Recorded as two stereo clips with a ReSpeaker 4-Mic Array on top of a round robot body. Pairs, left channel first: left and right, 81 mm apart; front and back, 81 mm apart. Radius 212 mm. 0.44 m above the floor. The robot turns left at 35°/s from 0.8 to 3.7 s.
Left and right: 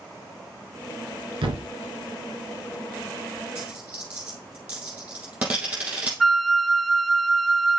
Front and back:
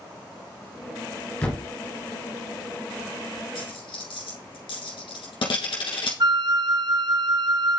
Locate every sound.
1.4 s a thud: 75° right, 1.4 m; by 1.7 s 85° right, 1.4 m
3.5 s a dropped coin: 5° right, 1.7 m; by 6.1 s 15° right, 1.7 m
6.2 s a flute: straight behind, 0.6 m